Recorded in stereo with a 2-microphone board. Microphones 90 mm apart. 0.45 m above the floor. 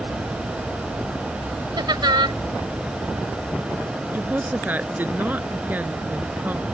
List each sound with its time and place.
1.8 s laughter: 65° right (ahead or behind)
4.1 s a woman speaking: 20° right (ahead or behind)